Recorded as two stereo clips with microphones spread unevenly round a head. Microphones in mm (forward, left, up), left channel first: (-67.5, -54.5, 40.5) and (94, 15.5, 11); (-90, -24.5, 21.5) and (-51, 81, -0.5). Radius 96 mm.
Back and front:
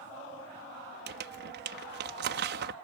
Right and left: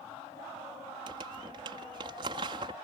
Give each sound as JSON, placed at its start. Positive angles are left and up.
{"t": 1.1, "sound": "crumpling", "azimuth_deg": 10}